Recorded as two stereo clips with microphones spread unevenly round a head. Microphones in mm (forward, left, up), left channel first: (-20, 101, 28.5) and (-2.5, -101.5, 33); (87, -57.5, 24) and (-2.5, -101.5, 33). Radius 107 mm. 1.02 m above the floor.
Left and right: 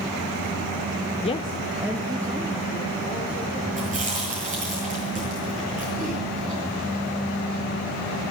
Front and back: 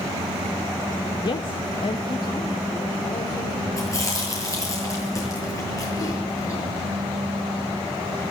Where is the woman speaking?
50° left, 0.5 m; by 4.2 s 15° right, 5 m.